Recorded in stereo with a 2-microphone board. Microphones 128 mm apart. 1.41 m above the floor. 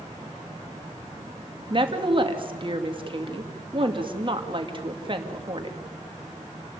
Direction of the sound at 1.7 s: 40° right (ahead or behind).